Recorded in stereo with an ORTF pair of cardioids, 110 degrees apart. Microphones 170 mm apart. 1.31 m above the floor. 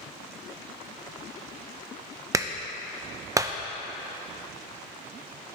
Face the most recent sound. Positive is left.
turn(degrees=-20)